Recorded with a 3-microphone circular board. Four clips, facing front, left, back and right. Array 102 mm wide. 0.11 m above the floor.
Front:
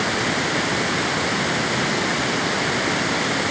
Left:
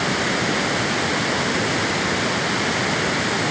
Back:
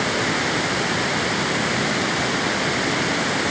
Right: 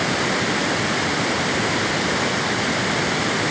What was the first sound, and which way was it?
Only background noise.